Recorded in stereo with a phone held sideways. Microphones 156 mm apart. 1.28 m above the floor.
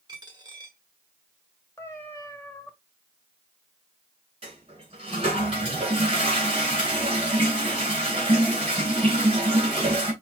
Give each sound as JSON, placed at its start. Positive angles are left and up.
{"t": 0.1, "sound": "a dropped coin", "side_deg": -30, "distance_m": 1.5}
{"t": 1.8, "sound": "a cat meowing", "side_deg": 15, "distance_m": 1.1}
{"t": 4.4, "sound": "a toilet flushing", "side_deg": -35, "distance_m": 3.0}